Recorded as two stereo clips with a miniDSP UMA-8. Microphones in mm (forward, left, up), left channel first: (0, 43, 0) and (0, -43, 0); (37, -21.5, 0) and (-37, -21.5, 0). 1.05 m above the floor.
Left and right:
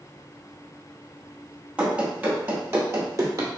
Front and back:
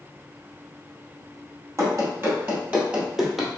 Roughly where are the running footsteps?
Behind.